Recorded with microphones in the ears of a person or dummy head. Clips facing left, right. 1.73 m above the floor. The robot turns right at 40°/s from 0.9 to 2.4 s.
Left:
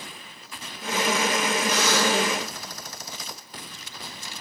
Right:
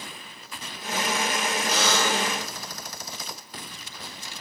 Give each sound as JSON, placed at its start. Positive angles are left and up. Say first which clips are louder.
{"t": 1.7, "sound": "a buzzer", "louder": "left 1 dB", "side_deg": -30, "distance_m": 3.0}